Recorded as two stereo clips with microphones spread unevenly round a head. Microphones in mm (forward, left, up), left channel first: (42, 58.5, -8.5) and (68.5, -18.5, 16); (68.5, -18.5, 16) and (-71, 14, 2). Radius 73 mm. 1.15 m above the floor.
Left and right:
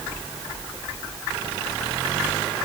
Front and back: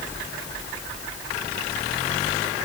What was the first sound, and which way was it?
Only background noise.